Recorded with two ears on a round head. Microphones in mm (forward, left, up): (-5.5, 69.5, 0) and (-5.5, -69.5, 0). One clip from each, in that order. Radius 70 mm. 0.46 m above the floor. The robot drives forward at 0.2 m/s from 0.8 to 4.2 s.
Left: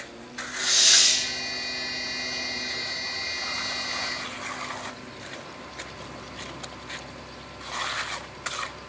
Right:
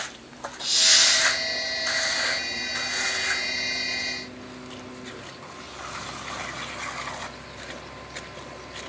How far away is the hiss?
About 1.9 m.